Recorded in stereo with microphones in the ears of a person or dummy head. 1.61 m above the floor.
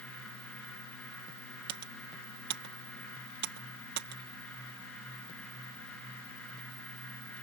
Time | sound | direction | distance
1.7 | typing on a keyboard | 65° right (ahead or behind) | ?